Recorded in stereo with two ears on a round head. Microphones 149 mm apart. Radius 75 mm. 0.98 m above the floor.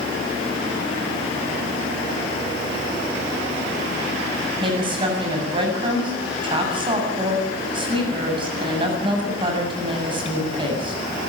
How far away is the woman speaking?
About 7.5 m.